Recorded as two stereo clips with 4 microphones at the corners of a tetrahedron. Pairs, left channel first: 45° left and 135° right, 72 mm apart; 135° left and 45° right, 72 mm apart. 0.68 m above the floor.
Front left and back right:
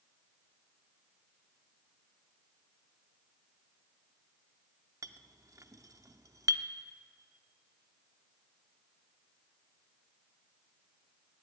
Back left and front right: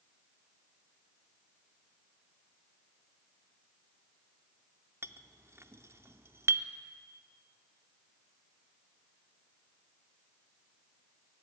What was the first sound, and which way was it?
A clink, 100° right.